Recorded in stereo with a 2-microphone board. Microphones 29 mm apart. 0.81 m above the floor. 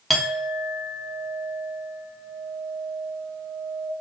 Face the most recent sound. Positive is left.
turn(degrees=5)  # may be behind; listen again after turning